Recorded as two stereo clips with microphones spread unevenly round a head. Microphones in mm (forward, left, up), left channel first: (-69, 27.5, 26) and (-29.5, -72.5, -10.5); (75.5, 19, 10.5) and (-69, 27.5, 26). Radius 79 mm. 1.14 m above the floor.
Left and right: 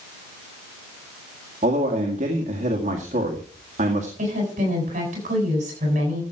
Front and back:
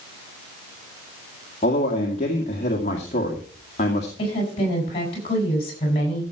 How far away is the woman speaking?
About 7.5 m.